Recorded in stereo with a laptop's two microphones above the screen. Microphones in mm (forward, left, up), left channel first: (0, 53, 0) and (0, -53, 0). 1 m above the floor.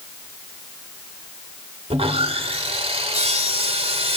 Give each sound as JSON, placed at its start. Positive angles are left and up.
{"t": 1.9, "sound": "sawing", "side_deg": -70, "distance_m": 2.0}